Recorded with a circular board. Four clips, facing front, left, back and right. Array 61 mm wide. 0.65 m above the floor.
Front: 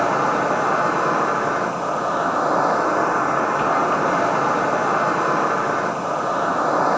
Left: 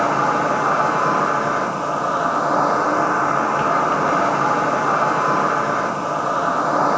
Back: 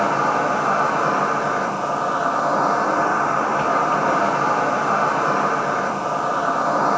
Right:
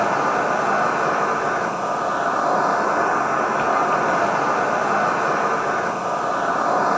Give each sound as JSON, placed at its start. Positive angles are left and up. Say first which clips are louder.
{"t": 0.0, "sound": "an insect", "louder": "left 2 dB, even", "azimuth_deg": 95, "distance_m": 2.0}